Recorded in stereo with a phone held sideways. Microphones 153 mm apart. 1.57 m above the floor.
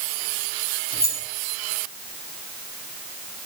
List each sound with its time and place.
0.9 s keys jangling: 75° left (ahead or behind), 3 m